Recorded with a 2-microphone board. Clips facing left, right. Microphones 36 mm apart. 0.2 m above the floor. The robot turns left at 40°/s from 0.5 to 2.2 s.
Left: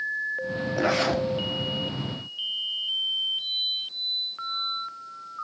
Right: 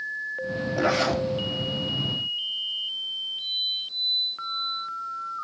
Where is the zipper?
Centre (ahead or behind), 2.5 m; by 1.2 s 15° left (ahead or behind), 2.5 m.